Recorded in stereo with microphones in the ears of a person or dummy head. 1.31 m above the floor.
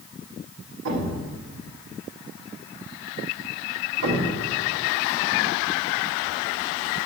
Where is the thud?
70° right (ahead or behind), 1.6 m.